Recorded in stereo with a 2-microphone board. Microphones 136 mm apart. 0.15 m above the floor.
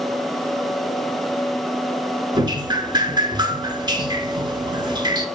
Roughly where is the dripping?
Right.